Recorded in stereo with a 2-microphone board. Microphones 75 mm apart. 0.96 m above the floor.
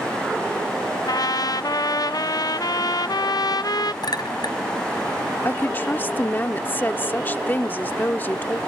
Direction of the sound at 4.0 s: 75° left (ahead or behind).